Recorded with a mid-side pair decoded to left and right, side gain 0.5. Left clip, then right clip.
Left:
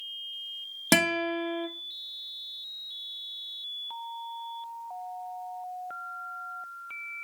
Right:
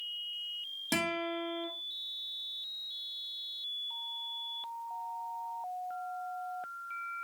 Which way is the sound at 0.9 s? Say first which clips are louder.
Left 9 dB; 70° left.